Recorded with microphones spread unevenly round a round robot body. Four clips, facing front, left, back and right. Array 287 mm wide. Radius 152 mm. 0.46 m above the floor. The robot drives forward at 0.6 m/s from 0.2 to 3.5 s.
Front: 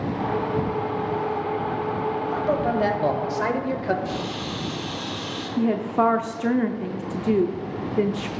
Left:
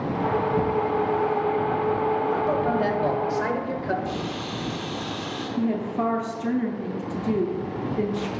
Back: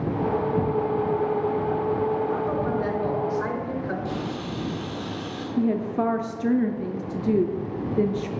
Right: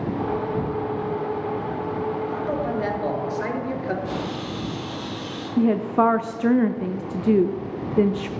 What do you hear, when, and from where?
2.3 s a man speaking: 5° left, 2.5 m; by 4.0 s 10° left, 1.9 m
4.0 s a camera shutter: 120° left, 3 m
5.6 s a woman speaking: 60° right, 0.7 m